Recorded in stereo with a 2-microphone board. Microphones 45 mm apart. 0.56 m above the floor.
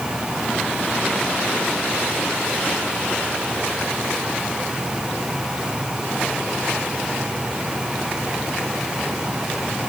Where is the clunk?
I don't hear a clunk.